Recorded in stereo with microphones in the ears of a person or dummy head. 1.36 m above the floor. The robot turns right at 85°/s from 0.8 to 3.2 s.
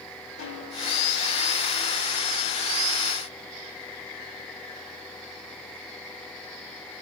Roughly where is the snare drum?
Left.